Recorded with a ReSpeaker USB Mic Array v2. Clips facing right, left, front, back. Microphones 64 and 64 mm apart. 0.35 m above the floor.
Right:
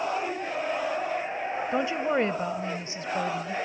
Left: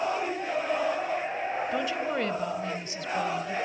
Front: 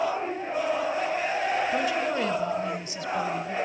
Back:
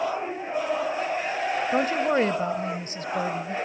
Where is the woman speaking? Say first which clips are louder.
Right 3 dB, back 3 dB; 145° right, 1.5 m.